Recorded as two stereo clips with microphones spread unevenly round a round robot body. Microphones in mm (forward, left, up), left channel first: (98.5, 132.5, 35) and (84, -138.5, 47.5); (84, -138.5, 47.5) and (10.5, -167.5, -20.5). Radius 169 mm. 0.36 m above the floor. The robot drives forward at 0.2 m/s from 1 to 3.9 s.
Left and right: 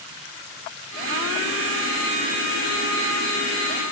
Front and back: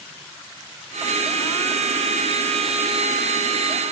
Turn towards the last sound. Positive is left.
No sound to turn to.